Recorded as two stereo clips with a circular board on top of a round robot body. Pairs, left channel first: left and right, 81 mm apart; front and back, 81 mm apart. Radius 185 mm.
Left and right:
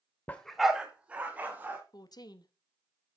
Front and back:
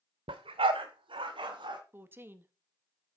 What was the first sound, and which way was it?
A dog barking, 160° left.